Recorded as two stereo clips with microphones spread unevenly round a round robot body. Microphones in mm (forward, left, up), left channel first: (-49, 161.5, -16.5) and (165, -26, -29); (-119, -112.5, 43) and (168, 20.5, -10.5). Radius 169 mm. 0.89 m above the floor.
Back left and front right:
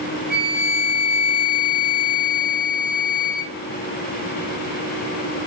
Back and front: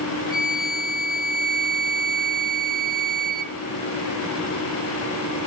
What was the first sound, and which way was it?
A flute, 80° left.